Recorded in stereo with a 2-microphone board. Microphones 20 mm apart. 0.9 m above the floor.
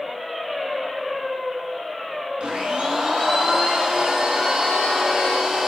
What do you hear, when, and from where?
2.4 s a blender: 65° right (ahead or behind), 4.5 m